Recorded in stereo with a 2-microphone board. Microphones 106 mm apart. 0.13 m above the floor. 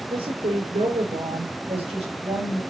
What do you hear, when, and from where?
0.1 s a woman speaking: 55° right (ahead or behind), 5.5 m; by 2.6 s 70° right (ahead or behind), 5.5 m